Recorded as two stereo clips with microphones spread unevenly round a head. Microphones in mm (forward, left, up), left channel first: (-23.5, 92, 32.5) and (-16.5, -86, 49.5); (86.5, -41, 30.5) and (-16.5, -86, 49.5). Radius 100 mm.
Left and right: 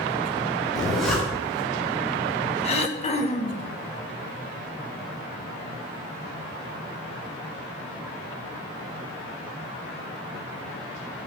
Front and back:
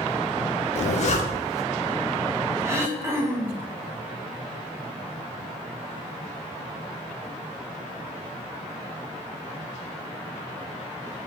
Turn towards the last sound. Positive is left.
turn(degrees=130)